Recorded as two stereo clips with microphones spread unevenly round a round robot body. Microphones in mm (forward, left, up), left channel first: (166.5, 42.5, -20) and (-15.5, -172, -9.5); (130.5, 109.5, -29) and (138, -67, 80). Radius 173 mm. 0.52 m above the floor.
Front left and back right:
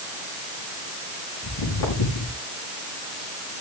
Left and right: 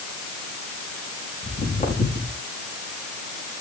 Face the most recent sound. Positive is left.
turn(degrees=40)